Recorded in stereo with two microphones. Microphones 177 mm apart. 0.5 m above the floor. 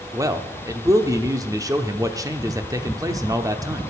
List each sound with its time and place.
0.1 s a man speaking: 20° right (ahead or behind), 0.8 m